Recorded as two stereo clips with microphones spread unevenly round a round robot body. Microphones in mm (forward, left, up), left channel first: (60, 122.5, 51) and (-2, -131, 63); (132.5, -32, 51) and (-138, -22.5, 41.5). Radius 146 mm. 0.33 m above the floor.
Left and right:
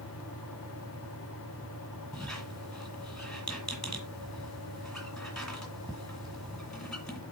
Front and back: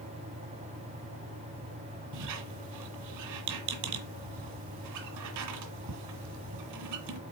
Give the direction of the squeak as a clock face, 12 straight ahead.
7 o'clock.